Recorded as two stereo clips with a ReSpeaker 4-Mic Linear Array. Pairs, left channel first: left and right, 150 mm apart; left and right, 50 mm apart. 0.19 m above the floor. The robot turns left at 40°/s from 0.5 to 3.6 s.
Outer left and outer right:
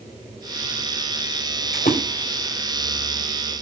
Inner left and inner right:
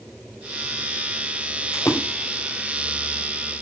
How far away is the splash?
About 5.5 m.